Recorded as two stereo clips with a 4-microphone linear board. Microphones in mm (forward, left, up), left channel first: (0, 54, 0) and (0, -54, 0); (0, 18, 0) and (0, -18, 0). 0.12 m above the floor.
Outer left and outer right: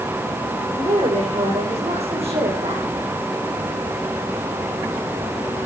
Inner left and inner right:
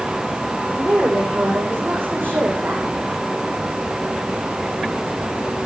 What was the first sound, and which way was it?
A woman speaking, 75° right (ahead or behind).